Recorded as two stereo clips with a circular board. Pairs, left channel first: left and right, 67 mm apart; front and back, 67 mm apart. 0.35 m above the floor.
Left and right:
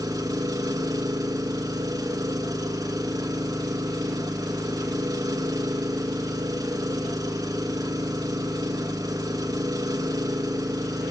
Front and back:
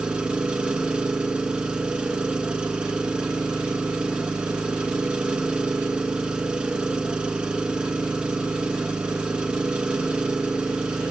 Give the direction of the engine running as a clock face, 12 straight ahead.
3 o'clock.